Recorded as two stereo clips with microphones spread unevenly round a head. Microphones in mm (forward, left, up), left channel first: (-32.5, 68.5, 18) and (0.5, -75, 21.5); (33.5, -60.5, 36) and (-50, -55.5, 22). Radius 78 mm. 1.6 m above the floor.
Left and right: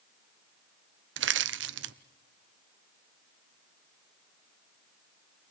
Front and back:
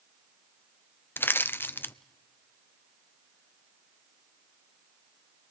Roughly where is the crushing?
Right.